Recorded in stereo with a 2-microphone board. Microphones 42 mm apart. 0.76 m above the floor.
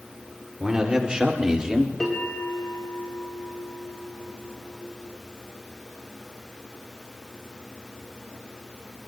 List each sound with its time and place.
0.6 s a man speaking: 20° right (ahead or behind), 2.5 m
2.0 s a bell: 5° left (ahead or behind), 4.5 m